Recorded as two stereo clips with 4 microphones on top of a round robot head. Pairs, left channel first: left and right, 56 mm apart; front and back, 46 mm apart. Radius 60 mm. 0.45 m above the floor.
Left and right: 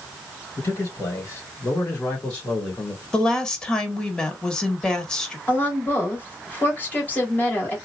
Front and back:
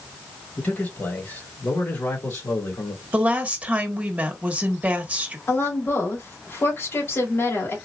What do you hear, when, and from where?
0.6 s a man speaking: 50° left, 2.5 m; by 3.0 s 15° left, 2.0 m
3.1 s a woman speaking: 150° left, 1.4 m
5.5 s a woman speaking: 30° left, 2.5 m